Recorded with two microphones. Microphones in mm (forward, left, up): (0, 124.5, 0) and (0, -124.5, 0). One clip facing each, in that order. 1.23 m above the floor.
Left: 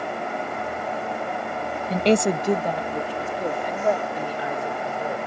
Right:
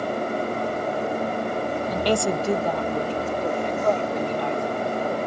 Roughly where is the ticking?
No ticking in this recording.